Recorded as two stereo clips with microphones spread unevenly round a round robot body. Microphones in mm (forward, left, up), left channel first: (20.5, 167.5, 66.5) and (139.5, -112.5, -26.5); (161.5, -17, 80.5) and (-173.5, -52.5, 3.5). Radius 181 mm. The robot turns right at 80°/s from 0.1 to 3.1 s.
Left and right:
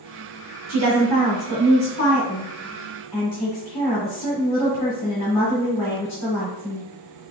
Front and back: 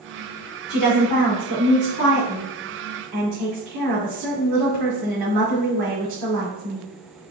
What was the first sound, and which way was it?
A woman speaking, 40° right.